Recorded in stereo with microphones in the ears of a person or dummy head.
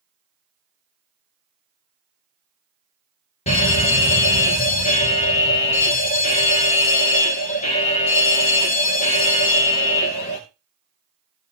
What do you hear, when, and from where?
3.5 s a fire alarm: 30° left (ahead or behind), 2.5 m